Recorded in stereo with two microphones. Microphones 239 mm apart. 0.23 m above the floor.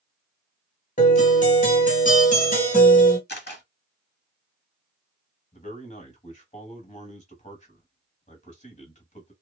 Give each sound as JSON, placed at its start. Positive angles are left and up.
{"t": 1.0, "sound": "a guitar", "side_deg": 30, "distance_m": 1.4}
{"t": 3.3, "sound": "a camera shutter", "side_deg": 40, "distance_m": 0.9}
{"t": 5.5, "sound": "a man speaking", "side_deg": 30, "distance_m": 1.0}